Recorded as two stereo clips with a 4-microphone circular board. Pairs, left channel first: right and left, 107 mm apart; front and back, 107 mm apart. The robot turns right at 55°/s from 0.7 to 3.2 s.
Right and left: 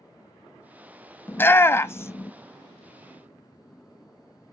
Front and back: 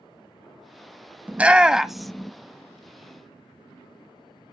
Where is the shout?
130° right, 0.5 m; by 2.3 s 75° right, 0.5 m.